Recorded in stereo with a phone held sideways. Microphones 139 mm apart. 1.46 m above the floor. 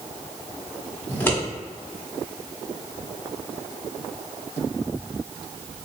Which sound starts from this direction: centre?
Scissors, at 1.1 s.